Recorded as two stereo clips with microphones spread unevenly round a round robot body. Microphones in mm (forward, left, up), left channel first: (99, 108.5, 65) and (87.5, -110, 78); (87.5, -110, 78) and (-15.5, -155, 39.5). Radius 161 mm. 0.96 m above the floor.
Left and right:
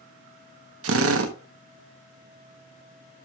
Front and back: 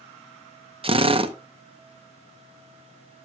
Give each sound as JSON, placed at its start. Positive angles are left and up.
{"t": 0.8, "sound": "a drill", "azimuth_deg": -120, "distance_m": 1.0}